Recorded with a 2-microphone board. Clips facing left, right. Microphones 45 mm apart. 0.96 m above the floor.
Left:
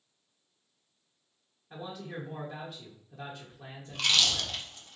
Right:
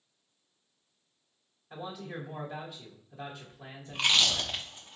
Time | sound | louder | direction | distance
1.7 | a man speaking | even | 5° left (ahead or behind) | 1.2 m
3.9 | chewing | right 1 dB | 20° right (ahead or behind) | 0.6 m